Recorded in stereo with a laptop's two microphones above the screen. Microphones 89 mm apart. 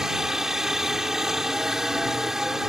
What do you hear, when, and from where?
0.0 s a helicopter: 5° right (ahead or behind)